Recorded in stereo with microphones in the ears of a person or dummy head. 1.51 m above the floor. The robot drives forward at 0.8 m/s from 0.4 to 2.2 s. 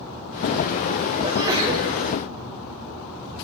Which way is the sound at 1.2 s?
20° right (ahead or behind).